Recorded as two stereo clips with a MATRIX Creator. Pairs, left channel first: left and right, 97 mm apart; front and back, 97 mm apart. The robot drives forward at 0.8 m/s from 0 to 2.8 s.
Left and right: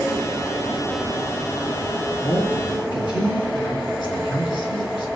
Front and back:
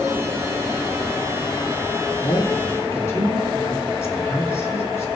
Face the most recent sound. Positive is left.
turn(degrees=60)